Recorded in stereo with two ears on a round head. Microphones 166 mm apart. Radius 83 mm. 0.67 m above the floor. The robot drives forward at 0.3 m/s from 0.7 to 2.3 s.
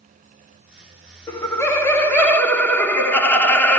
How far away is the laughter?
About 0.5 m.